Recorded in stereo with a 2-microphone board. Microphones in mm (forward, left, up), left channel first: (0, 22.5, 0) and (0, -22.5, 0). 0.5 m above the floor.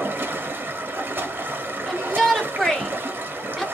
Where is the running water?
45° right (ahead or behind), 0.9 m.